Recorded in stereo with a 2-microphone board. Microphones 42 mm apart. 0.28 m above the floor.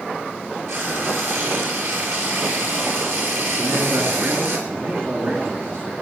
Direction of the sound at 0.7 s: 75° right (ahead or behind).